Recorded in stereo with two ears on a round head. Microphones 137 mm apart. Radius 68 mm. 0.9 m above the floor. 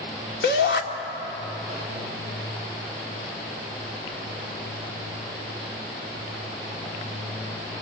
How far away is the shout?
About 2 m.